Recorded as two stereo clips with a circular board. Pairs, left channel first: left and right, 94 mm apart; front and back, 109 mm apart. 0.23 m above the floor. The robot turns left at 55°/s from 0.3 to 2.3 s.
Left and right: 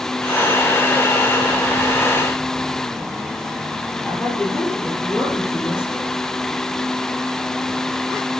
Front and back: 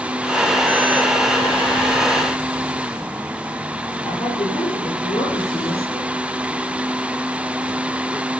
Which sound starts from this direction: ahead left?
A woman speaking, at 4.0 s.